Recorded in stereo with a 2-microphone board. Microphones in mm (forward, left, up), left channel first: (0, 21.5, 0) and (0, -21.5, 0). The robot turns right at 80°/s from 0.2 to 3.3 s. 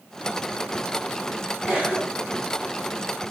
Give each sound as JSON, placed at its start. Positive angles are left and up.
{"t": 1.7, "sound": "a cough", "side_deg": -30, "distance_m": 2.0}